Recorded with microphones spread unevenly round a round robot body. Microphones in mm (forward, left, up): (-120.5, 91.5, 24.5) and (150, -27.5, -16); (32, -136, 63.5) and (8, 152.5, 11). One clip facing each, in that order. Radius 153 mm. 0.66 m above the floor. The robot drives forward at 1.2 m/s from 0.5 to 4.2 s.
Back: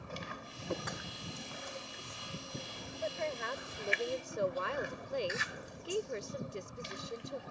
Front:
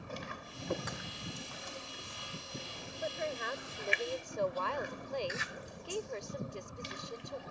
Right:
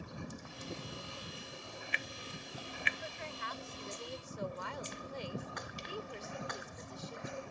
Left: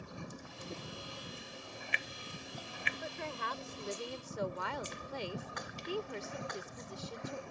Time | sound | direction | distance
3.0 | a woman speaking | 55° left | ?